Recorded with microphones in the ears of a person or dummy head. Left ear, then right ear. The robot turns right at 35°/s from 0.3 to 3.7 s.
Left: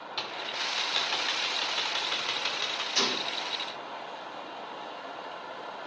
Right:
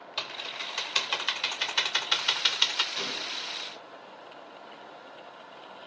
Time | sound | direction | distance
0.2 | typing on a keyboard | 15° right (ahead or behind) | 0.6 m
3.0 | a gunshot | 85° left | 1.9 m